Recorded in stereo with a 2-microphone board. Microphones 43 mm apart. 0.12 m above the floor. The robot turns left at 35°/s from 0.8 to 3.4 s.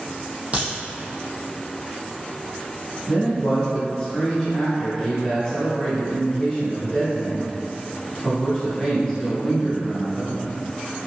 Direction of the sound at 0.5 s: 30° right (ahead or behind).